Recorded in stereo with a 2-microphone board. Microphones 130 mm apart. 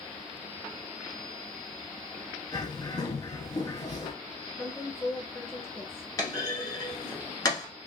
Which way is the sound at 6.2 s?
30° left (ahead or behind).